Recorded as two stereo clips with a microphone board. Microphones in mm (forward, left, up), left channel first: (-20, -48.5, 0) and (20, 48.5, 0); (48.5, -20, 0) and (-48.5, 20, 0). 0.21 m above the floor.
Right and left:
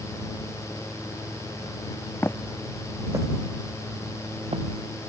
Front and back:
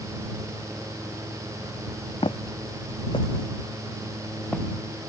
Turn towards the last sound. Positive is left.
turn(degrees=60)